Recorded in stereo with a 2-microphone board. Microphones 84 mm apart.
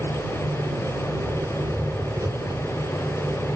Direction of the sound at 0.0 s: 40° right (ahead or behind).